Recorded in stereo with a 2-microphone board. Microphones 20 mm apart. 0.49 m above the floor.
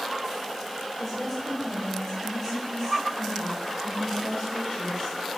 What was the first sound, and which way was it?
A woman speaking, 5° left (ahead or behind).